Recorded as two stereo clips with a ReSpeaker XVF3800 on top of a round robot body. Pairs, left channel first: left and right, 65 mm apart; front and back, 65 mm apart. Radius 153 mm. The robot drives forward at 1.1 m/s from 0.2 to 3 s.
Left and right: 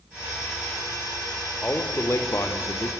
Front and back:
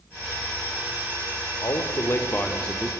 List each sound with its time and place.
1.6 s a man speaking: 30° left, 2.0 m; by 2.9 s 85° left, 1.3 m